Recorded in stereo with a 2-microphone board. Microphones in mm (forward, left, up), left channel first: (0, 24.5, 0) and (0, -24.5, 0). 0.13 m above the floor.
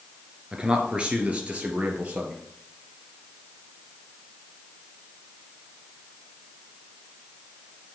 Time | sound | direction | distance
0.5 | a man speaking | 15° right (ahead or behind) | 1.7 m